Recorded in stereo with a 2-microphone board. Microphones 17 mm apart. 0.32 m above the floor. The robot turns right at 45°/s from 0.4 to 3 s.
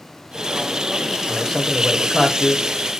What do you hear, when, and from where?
1.3 s a man speaking: 10° left (ahead or behind), 0.9 m; by 2.6 s 10° right (ahead or behind), 0.9 m